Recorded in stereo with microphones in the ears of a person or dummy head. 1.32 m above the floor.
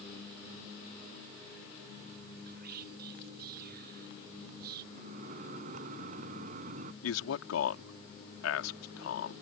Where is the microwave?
50° right (ahead or behind).